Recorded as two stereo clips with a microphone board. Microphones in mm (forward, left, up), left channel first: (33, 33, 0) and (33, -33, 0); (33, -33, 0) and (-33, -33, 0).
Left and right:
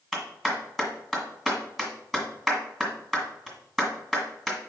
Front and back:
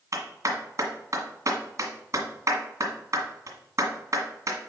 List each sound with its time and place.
0.1 s a clap: straight behind, 1.8 m